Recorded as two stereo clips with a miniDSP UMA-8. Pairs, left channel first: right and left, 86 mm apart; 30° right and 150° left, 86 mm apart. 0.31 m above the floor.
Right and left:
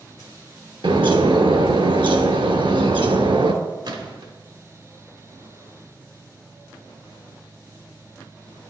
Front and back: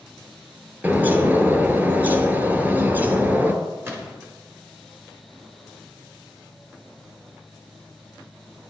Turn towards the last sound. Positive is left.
turn(degrees=90)